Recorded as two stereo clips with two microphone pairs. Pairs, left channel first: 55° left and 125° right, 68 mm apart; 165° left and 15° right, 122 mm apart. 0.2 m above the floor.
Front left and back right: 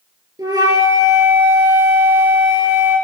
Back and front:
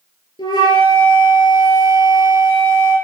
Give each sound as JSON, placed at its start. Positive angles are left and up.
{"t": 0.4, "sound": "a flute", "azimuth_deg": -140, "distance_m": 4.0}